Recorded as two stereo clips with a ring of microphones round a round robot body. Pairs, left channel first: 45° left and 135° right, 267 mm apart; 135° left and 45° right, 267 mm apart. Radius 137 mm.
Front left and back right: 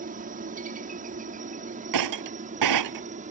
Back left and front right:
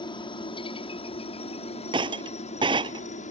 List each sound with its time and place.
0.0 s a helicopter: 165° right; by 3.3 s straight behind
1.9 s breaking glass: 120° right